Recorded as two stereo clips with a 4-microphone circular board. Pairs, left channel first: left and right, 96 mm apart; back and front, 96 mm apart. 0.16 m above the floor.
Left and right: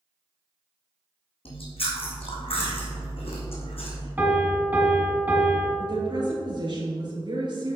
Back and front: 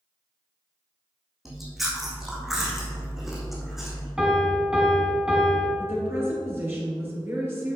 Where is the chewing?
85° left, 2.0 m.